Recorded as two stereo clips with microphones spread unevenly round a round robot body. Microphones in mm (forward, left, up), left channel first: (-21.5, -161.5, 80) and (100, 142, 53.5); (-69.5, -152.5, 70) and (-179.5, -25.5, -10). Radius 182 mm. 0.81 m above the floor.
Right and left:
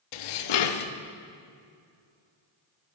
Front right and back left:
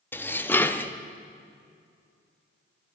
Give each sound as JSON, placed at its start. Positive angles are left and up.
{"t": 0.1, "sound": "dishes clattering", "azimuth_deg": -130, "distance_m": 0.6}